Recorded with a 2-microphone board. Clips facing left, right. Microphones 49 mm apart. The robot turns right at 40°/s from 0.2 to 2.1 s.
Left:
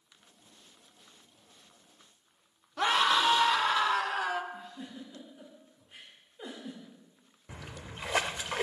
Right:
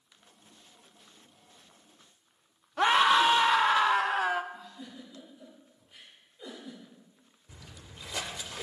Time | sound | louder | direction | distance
2.8 | a scream | right 4 dB | 20° right (ahead or behind) | 0.7 m
4.5 | a giggle | left 2 dB | 30° left (ahead or behind) | 6 m
7.5 | a splash | left 6 dB | 60° left (ahead or behind) | 0.6 m